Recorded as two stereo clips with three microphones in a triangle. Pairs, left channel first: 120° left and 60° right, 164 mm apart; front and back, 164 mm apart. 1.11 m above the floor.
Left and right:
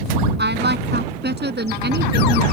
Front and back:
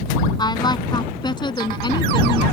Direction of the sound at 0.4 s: 65° right.